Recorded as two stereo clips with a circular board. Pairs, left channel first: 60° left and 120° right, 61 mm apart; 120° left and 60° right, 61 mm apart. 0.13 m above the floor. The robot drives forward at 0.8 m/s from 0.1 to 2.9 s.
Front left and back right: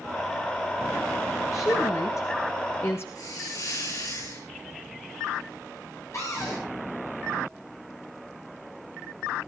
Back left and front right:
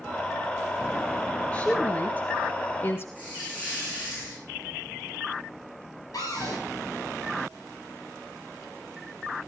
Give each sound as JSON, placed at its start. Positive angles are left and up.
{"t": 1.5, "sound": "a woman speaking", "azimuth_deg": 50, "distance_m": 2.5}
{"t": 3.1, "sound": "a hiss", "azimuth_deg": 50, "distance_m": 9.0}
{"t": 6.1, "sound": "a cupboard door", "azimuth_deg": 100, "distance_m": 8.5}